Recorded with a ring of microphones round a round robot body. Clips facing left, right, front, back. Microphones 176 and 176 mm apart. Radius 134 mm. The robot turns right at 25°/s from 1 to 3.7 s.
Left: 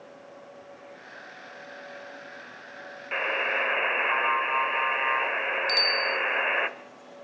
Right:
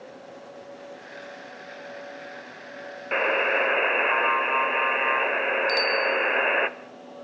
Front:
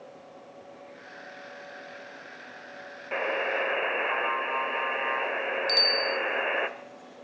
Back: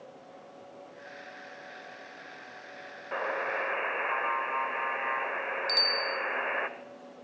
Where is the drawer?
I don't hear a drawer.